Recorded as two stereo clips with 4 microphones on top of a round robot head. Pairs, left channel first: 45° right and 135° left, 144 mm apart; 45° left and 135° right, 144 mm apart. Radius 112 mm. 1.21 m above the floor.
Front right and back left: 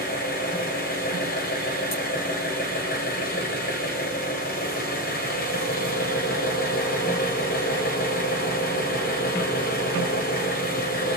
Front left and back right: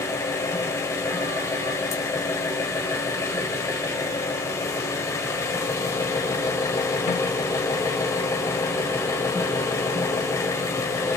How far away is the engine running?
About 2.5 m.